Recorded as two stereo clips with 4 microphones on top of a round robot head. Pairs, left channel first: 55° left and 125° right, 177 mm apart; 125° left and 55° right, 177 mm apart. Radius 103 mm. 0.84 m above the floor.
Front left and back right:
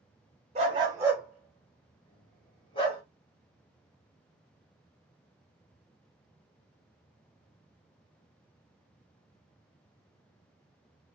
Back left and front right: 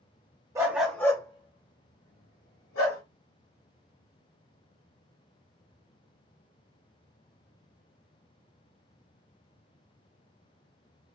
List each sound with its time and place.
0.6 s a dog barking: 110° right, 0.6 m; by 3.0 s 115° left, 1.2 m